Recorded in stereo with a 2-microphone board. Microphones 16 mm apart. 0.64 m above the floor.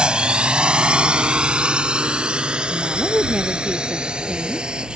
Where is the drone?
70° right (ahead or behind); by 5.0 s 65° right (ahead or behind).